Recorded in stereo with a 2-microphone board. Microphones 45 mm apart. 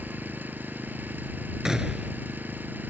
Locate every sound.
0.0 s an engine running: 45° right (ahead or behind)
1.6 s a gunshot: 15° right (ahead or behind)